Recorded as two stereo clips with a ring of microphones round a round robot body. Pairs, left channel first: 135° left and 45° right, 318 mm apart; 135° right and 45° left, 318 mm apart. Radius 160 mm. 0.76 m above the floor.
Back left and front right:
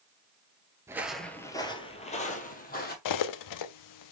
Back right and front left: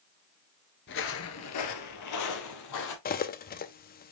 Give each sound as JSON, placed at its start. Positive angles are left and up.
{"t": 0.9, "sound": "footsteps", "azimuth_deg": -120, "distance_m": 0.8}
{"t": 3.0, "sound": "cutlery clinking", "azimuth_deg": 165, "distance_m": 0.6}